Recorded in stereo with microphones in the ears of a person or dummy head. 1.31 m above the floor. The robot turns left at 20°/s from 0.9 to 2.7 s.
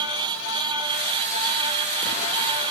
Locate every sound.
Only background noise.